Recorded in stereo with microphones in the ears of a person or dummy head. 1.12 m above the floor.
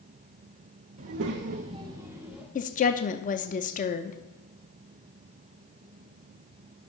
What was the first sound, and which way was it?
A child speaking, 45° right (ahead or behind).